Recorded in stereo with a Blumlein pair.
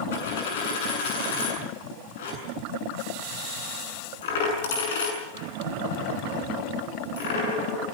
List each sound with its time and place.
0.1 s a dropped coin: 55° left, 7 m